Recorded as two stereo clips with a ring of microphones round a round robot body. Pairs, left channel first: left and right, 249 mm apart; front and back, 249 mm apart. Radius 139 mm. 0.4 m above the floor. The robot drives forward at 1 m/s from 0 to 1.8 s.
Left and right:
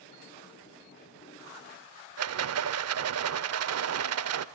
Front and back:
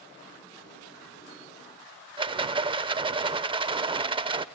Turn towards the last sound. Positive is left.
turn(degrees=-110)